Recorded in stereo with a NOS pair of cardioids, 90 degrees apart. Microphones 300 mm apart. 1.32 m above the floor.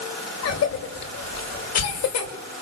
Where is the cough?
55° left, 6.5 m.